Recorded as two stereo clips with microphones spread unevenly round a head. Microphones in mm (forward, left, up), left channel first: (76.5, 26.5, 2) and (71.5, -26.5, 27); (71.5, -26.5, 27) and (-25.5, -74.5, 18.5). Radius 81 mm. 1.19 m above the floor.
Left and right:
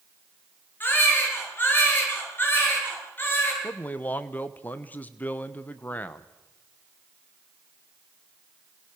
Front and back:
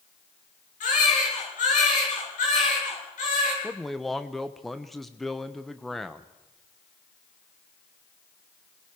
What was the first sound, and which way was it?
A baby crying, 35° left.